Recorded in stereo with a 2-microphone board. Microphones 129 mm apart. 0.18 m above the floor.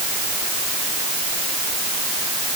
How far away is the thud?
I don't hear a thud.